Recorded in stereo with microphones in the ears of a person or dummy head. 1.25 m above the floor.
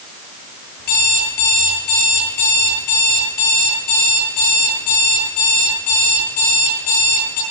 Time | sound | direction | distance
0.8 | an alarm clock | 60° left (ahead or behind) | 10 m